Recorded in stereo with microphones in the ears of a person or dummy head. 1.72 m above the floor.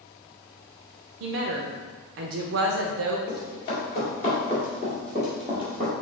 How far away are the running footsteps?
About 1.9 m.